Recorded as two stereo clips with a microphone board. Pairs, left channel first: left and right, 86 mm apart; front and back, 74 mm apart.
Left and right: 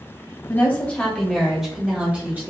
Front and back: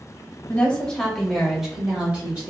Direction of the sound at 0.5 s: 50° left.